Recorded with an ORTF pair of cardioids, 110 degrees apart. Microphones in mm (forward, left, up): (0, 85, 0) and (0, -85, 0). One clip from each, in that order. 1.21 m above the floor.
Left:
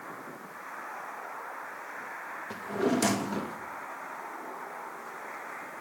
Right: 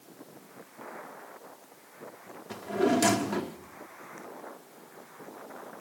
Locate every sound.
2.5 s a drawer: 5° right, 0.9 m